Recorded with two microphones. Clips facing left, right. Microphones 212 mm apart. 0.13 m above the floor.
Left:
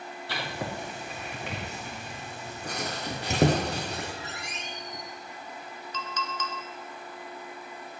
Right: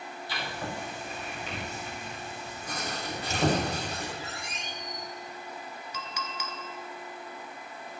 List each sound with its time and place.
0.3 s writing: 65° left (ahead or behind), 3.5 m
3.1 s a squeak: 65° left (ahead or behind), 2.5 m
5.9 s a clink: 10° right (ahead or behind), 1.3 m